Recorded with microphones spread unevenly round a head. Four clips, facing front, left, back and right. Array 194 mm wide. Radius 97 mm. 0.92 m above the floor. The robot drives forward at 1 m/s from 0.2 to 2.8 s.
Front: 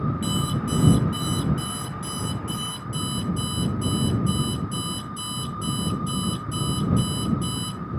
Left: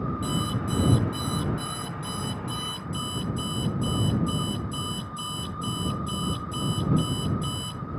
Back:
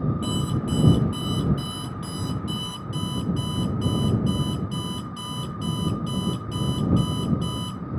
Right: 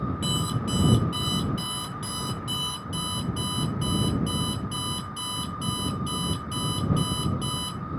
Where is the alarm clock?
80° right, 7 m; by 7.8 s 100° right, 7 m.